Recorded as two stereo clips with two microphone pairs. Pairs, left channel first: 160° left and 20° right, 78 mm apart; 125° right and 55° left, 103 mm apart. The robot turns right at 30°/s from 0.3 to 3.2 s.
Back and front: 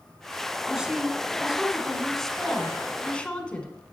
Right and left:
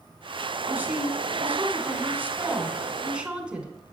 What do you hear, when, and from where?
0.7 s a woman speaking: 35° left, 1.5 m; by 3.7 s 110° left, 1.5 m